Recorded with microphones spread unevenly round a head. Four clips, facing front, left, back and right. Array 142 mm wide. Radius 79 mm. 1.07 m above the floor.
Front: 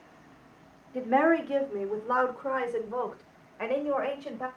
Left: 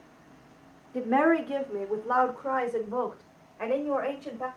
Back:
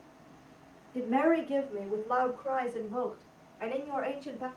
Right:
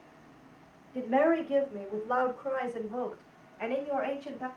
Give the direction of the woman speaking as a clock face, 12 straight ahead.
10 o'clock.